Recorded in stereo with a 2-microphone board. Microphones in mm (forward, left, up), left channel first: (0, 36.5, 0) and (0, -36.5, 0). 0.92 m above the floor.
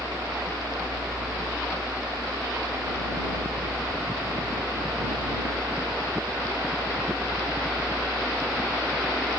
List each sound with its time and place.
0.0 s a helicopter: 60° right (ahead or behind)